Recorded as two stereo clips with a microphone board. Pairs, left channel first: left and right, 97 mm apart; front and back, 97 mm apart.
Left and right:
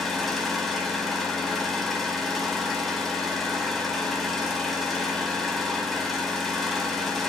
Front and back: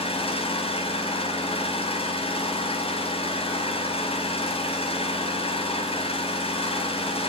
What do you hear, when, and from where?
0.0 s an engine running: straight ahead, 5 m